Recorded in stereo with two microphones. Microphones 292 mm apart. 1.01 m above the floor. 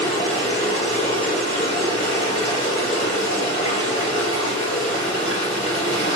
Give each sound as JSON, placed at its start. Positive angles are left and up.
{"t": 0.0, "sound": "running water", "side_deg": 20, "distance_m": 2.0}